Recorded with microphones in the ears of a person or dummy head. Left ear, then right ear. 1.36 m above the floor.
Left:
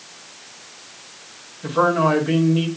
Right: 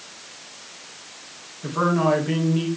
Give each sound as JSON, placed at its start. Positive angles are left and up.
{"t": 1.6, "sound": "a man speaking", "side_deg": -5, "distance_m": 3.5}